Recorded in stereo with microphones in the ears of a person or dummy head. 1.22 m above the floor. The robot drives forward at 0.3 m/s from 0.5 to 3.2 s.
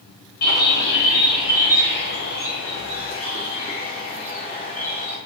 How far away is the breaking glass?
No breaking glass in this recording.